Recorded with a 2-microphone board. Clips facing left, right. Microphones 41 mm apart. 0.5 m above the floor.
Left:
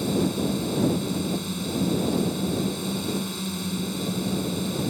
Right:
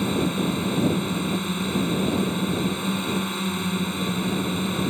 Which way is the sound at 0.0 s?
40° right (ahead or behind).